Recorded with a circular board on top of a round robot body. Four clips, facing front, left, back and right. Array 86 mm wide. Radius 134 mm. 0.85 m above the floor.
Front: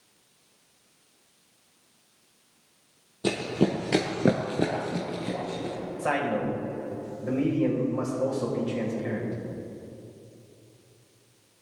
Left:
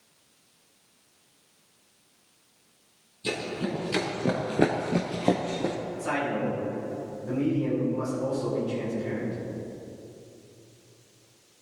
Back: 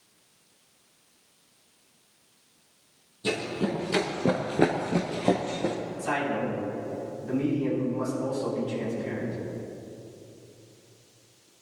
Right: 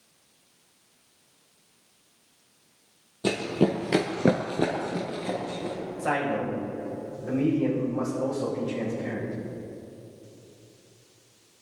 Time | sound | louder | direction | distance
3.2 | running footsteps | right 7 dB, front 3 dB | 50° right | 2 m
6.0 | a man speaking | right 2 dB, front 2 dB | 25° right | 6 m